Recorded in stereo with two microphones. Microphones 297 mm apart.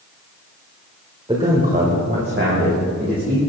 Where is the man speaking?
20° right (ahead or behind), 1.8 m; by 3.4 s 45° right (ahead or behind), 4 m.